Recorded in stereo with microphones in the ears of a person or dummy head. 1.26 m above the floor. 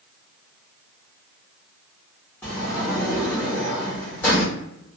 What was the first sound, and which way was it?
A sliding door, 5° left (ahead or behind).